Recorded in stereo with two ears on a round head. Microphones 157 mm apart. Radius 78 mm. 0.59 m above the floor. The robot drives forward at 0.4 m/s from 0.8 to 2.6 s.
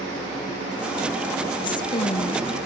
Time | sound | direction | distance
1.6 | a woman speaking | 25° left (ahead or behind) | 0.6 m